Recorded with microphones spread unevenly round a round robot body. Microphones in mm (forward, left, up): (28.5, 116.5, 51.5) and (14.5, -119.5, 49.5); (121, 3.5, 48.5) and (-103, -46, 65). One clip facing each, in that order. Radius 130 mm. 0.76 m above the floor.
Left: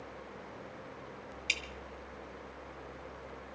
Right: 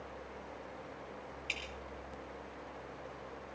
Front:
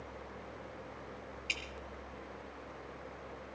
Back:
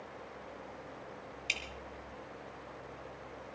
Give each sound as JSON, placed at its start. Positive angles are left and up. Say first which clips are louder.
{"t": 1.5, "sound": "dripping", "louder": "left 1 dB, even", "azimuth_deg": 125, "distance_m": 2.0}